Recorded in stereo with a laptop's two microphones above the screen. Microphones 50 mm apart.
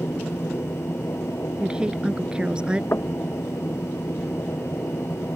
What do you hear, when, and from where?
0.0 s a machine running: 60° left (ahead or behind)
1.6 s a woman speaking: 20° right (ahead or behind)
2.9 s knocking: 55° left (ahead or behind)